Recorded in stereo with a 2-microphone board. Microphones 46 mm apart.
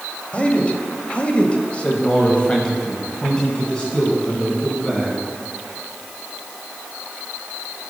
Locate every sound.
0.3 s a man speaking: 25° left (ahead or behind), 1.3 m; by 5.2 s 15° left (ahead or behind), 2.5 m